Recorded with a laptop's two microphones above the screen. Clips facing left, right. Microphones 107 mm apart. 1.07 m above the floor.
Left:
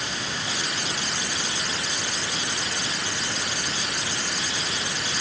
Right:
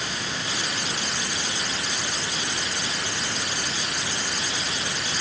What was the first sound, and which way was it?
Only background noise.